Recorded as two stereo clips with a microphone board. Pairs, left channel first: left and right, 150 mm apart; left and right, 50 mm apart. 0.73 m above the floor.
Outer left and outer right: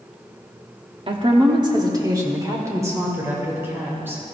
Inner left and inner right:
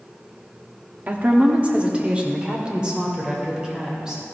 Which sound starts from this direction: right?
A woman speaking, at 1.1 s.